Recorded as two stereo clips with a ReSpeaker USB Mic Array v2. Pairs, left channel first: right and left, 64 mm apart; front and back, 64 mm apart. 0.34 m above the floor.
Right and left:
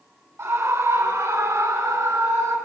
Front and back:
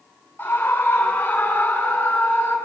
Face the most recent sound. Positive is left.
turn(degrees=60)